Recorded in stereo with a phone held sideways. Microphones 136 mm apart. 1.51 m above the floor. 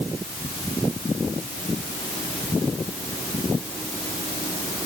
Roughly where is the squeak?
I don't hear a squeak.